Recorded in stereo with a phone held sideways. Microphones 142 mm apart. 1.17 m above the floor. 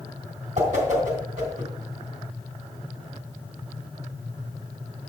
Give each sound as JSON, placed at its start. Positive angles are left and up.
{"t": 0.6, "sound": "a whoosh", "side_deg": -60, "distance_m": 3.0}